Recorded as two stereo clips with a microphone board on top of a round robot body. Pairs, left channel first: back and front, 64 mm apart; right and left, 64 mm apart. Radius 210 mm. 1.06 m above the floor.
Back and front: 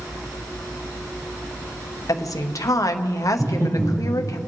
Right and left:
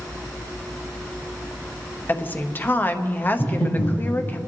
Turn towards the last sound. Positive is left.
turn(degrees=-20)